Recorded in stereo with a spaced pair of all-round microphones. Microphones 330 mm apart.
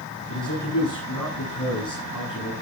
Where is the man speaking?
80° left, 9 m.